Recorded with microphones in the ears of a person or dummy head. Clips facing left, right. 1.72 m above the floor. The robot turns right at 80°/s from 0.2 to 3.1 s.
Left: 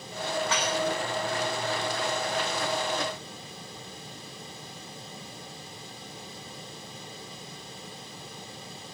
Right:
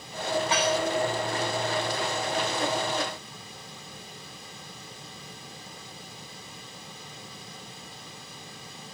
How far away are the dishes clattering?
About 8.5 m.